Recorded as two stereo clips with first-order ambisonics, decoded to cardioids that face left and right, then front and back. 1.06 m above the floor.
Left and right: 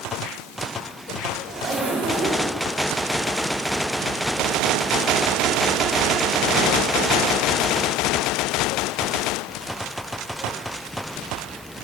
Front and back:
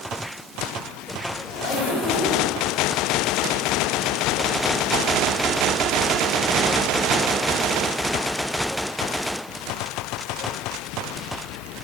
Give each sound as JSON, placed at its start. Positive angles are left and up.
{"t": 1.5, "sound": "a zipper", "azimuth_deg": -35, "distance_m": 3.0}